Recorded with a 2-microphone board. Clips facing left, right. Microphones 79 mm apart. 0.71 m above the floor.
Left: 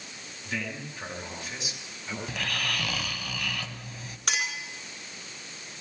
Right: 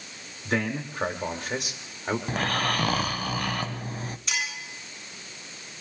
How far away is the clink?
About 5 m.